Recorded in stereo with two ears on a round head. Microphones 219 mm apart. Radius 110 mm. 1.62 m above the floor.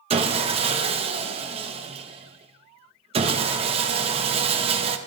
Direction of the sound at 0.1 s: 25° right (ahead or behind).